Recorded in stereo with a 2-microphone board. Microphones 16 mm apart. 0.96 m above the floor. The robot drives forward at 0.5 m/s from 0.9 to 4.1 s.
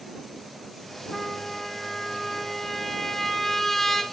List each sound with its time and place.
1.1 s a trumpet: 15° left (ahead or behind), 3.5 m; by 4.0 s 25° left (ahead or behind), 2 m